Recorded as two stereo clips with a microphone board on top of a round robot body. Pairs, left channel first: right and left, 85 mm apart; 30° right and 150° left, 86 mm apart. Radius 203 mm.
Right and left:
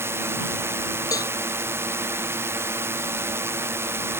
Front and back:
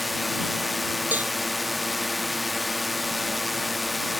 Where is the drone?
60° left.